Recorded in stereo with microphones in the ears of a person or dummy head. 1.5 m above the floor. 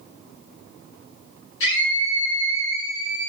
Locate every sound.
1.6 s a scream: 70° left (ahead or behind), 3 m